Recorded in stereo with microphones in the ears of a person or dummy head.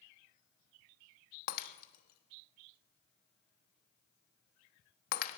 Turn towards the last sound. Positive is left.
turn(degrees=55)  # may be behind; listen again after turning